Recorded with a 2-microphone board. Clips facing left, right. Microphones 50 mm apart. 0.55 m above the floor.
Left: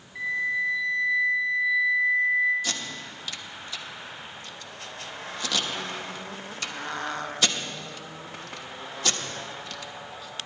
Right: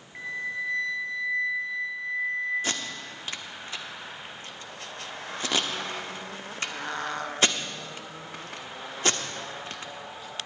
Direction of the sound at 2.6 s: 35° right (ahead or behind).